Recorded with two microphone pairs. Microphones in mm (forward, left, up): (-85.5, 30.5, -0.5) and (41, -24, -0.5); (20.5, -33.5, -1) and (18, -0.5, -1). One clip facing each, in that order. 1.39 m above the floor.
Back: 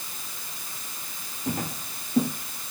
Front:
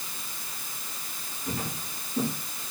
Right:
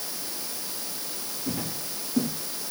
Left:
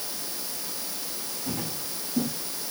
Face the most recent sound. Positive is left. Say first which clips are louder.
# back 4 dB, right 1 dB
turn(degrees=-170)